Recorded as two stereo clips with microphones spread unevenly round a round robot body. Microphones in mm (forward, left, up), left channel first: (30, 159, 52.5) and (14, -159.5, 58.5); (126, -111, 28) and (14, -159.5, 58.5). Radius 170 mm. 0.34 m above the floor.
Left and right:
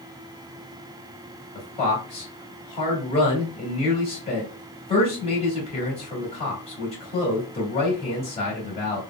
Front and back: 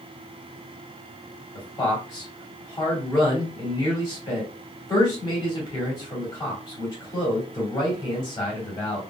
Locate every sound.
1.6 s a man speaking: 25° left, 1.6 m